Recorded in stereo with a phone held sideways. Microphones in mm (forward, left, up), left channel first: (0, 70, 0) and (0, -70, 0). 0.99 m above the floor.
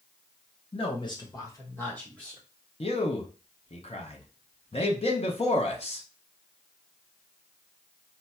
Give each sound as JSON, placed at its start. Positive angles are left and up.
{"t": 0.7, "sound": "a man speaking", "side_deg": 40, "distance_m": 1.0}
{"t": 2.8, "sound": "a man speaking", "side_deg": 45, "distance_m": 0.9}